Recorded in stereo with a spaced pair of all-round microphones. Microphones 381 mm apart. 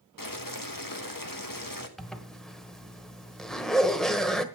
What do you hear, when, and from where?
0.2 s boiling: 55° left (ahead or behind), 1.4 m
2.0 s a zipper: centre (ahead or behind), 1.1 m